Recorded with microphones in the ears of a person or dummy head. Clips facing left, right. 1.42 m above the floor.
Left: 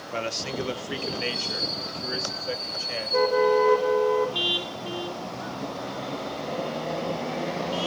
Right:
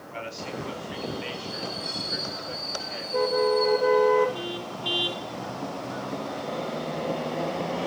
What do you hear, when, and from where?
0.1 s a man speaking: 65° left (ahead or behind), 1.5 m; by 3.2 s 85° left, 3.5 m